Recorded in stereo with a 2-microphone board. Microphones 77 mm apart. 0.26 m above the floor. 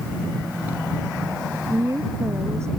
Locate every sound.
1.7 s a woman speaking: 45° right (ahead or behind); by 2.7 s 35° right (ahead or behind)